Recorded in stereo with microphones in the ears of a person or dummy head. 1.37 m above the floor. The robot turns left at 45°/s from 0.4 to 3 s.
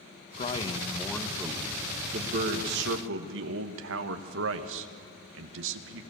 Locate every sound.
0.4 s a man speaking: 35° left, 1.3 m; by 6.0 s 80° right, 1.3 m